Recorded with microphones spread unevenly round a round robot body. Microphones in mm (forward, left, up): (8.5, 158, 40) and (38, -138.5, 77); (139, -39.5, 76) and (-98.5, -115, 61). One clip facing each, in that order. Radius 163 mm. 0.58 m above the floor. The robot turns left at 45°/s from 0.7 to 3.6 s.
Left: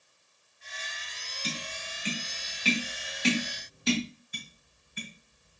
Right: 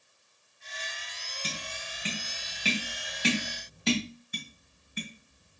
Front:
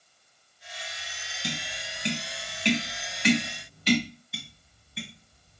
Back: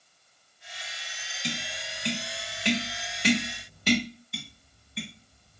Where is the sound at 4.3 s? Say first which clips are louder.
Right 4 dB, back 2 dB; 70° right, 2.5 m.